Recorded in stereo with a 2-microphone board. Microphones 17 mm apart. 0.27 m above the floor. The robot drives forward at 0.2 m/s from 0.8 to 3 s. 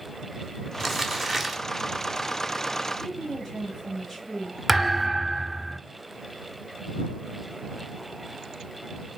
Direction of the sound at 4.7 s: 5° right (ahead or behind).